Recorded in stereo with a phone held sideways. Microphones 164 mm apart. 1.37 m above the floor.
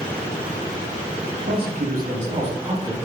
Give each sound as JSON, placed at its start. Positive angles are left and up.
{"t": 1.4, "sound": "a man speaking", "side_deg": -70, "distance_m": 1.0}